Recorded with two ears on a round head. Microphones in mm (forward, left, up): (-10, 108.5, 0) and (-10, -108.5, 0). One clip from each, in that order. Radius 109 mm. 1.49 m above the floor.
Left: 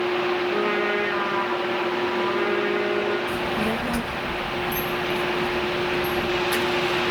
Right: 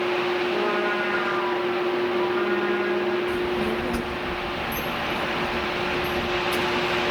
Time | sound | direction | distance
0.5 | a trumpet | 50° left (ahead or behind) | 8 m
3.3 | a child speaking | 35° left (ahead or behind) | 1.3 m